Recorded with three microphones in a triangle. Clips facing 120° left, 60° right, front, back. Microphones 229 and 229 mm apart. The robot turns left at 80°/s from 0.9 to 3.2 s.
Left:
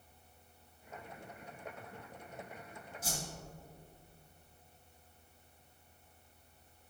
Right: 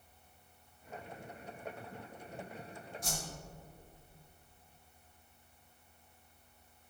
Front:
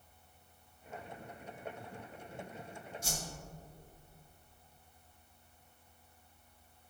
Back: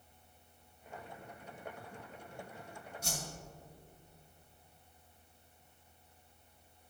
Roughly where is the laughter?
I don't hear laughter.